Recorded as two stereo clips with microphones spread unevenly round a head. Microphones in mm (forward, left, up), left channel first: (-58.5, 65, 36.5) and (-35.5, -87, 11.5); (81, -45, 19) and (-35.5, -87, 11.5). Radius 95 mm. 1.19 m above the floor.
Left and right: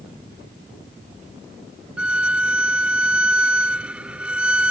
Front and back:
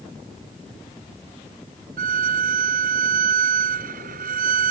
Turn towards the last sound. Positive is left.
turn(degrees=-165)